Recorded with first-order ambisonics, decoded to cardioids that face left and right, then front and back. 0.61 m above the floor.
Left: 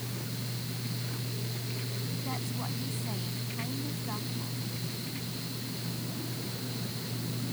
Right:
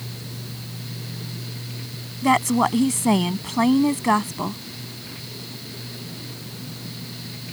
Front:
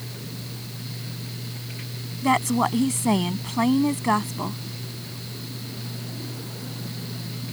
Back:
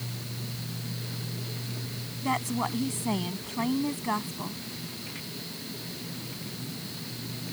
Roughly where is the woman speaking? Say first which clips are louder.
Right 24 dB, front 8 dB; ahead right.